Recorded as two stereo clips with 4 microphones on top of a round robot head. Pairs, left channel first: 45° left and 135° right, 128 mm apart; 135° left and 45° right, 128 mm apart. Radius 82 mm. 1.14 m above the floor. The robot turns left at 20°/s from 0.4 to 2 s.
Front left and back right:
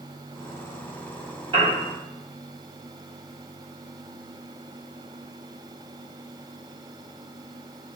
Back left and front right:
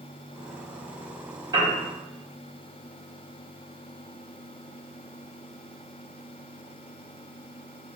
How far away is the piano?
About 1.2 m.